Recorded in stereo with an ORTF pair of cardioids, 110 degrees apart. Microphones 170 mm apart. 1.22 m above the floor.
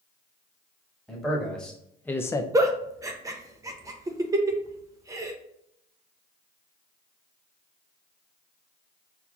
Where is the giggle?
20° right, 0.6 m.